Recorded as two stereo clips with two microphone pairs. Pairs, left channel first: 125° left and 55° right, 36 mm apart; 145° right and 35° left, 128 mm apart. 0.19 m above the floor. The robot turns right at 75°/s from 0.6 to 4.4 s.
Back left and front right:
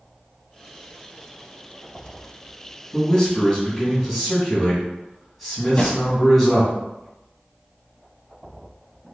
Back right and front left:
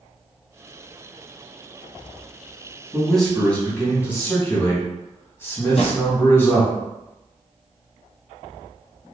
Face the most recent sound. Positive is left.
turn(degrees=-175)